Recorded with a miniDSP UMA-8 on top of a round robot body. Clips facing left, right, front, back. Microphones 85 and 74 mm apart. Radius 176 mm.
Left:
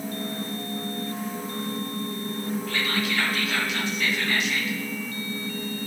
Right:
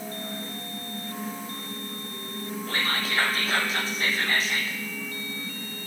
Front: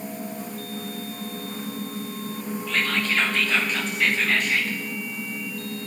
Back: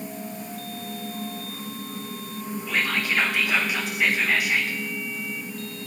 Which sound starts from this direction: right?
Whispering, at 2.7 s.